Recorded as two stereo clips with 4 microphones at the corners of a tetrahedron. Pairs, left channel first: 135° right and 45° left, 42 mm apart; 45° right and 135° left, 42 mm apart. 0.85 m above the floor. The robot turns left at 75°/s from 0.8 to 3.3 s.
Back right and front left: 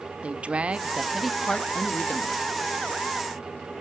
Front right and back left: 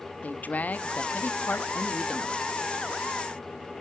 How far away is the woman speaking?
About 1.4 m.